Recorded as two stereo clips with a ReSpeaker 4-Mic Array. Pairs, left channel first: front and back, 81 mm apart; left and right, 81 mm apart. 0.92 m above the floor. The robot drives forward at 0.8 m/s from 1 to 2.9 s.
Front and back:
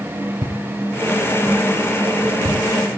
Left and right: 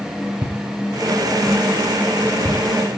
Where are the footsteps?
135° right, 7 m; by 2.6 s 150° right, 8.5 m.